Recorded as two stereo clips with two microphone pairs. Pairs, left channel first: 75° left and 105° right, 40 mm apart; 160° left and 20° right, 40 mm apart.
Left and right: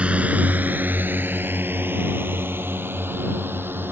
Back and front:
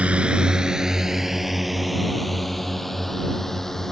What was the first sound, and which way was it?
A drone, 60° right.